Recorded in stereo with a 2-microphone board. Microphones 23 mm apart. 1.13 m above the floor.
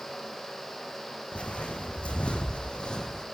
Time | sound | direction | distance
1.3 | footsteps | 65° left (ahead or behind) | 3 m